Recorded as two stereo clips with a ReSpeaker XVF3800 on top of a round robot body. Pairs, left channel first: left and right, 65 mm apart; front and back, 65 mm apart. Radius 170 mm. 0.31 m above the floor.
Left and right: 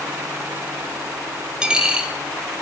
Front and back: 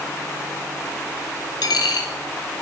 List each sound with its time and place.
1.6 s a dropped coin: 15° right, 1.1 m